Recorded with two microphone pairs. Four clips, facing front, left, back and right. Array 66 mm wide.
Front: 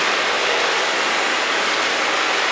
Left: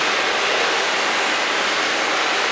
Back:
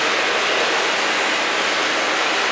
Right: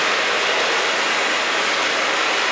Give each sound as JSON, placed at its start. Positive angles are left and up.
{"t": 0.0, "sound": "running water", "azimuth_deg": -65, "distance_m": 1.2}